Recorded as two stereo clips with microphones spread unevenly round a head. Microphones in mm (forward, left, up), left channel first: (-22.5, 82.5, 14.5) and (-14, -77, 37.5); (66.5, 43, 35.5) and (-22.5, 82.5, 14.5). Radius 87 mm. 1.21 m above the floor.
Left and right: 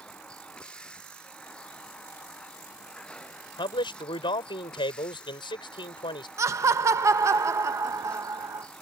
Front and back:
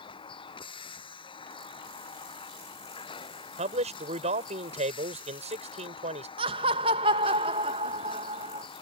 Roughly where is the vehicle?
Ahead.